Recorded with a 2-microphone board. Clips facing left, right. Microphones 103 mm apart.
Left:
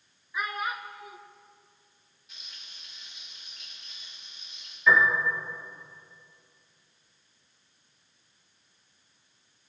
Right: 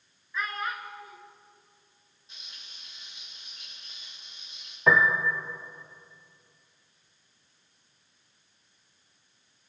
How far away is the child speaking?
About 0.8 m.